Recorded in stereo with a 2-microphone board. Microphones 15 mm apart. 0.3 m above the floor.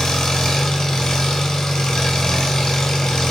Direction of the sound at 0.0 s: 70° left (ahead or behind).